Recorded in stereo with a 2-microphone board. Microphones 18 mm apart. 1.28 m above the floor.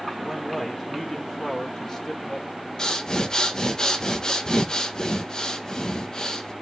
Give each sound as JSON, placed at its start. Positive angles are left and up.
{"t": 0.2, "sound": "a man speaking", "side_deg": 20, "distance_m": 1.7}
{"t": 2.8, "sound": "breathing", "side_deg": 30, "distance_m": 1.3}